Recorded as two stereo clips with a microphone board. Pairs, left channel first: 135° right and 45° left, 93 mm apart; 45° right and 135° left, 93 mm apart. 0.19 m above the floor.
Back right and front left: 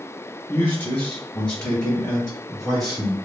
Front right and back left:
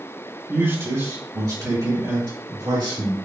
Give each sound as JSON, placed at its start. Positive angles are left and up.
{"t": 0.5, "sound": "a man speaking", "azimuth_deg": 175, "distance_m": 1.9}